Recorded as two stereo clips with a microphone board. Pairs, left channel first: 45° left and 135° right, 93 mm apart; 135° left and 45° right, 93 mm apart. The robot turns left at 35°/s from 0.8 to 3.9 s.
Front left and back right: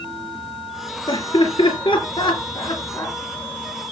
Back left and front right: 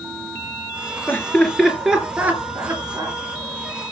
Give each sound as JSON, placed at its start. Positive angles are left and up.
{"t": 1.1, "sound": "laughter", "azimuth_deg": 65, "distance_m": 4.0}